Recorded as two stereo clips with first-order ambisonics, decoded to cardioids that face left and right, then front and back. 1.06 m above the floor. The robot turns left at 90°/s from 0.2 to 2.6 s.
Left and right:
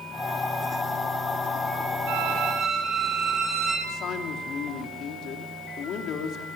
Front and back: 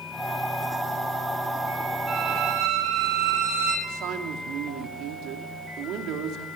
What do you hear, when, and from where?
2.1 s a violin: 100° right, 6 m; by 3.8 s 150° right, 6 m
3.9 s a man speaking: 145° left, 3 m